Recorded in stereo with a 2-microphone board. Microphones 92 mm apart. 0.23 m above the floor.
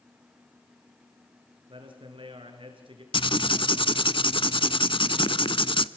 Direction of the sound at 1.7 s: 70° right (ahead or behind).